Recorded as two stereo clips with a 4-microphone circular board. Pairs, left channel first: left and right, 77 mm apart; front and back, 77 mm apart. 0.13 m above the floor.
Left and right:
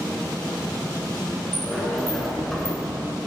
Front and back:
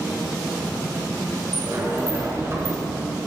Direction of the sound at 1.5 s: 175° left.